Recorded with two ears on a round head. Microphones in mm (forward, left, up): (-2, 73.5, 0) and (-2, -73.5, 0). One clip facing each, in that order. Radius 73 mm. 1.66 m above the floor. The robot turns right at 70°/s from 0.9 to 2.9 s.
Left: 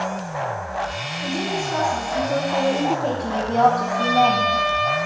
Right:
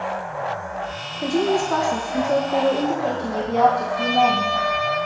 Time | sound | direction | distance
1.2 | a woman speaking | 125° right | 1.3 m
3.7 | a trumpet | 35° right (ahead or behind) | 3 m